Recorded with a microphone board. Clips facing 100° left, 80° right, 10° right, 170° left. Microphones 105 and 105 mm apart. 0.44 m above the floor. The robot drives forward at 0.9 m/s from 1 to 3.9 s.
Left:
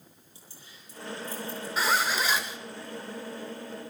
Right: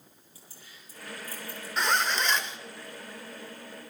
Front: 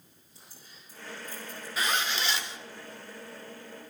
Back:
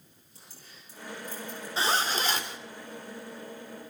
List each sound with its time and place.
0.3 s keys jangling: 165° left, 7 m
1.8 s a zipper: 175° right, 1.2 m; by 2.6 s straight behind, 1.7 m